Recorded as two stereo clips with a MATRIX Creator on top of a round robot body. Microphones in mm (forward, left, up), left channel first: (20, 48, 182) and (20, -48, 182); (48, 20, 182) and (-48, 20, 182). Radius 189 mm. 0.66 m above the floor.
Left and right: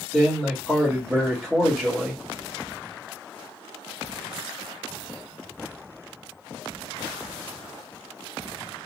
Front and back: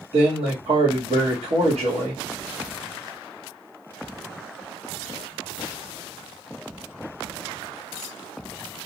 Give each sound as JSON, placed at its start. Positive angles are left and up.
{"t": 0.1, "sound": "a man speaking", "azimuth_deg": -175, "distance_m": 1.3}